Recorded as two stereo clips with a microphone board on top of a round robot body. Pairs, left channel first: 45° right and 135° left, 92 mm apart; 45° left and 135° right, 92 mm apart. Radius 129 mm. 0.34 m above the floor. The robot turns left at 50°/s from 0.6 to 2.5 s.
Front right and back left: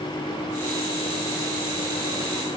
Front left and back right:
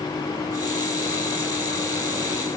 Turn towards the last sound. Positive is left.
No sound to turn to.